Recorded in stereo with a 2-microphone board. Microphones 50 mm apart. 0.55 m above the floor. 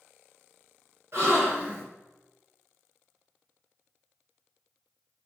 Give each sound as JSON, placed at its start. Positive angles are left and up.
{"t": 1.1, "sound": "a gasp", "side_deg": -55, "distance_m": 1.9}